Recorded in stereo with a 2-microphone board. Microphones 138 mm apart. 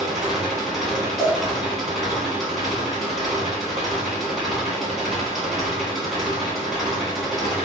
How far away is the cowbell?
About 1.0 m.